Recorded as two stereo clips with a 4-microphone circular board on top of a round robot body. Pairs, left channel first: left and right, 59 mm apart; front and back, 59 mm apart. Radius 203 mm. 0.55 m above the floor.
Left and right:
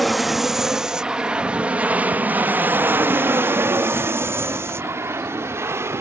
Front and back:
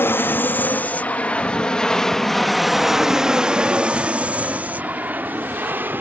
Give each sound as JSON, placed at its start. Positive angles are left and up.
{"t": 0.0, "sound": "an aircraft", "azimuth_deg": 0}